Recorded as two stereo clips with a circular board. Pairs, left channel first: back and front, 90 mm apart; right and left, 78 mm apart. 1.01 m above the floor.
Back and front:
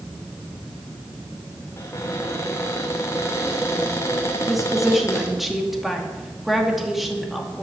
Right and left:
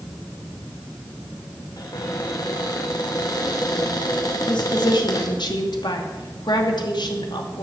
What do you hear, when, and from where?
1.8 s a cupboard door: 125° right, 2.5 m
4.5 s a woman speaking: 90° right, 2.5 m